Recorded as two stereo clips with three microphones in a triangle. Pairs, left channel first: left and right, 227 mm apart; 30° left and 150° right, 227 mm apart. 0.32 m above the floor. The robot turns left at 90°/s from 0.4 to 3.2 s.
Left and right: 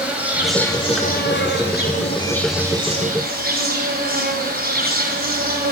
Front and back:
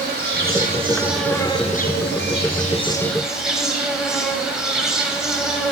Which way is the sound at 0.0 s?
170° right.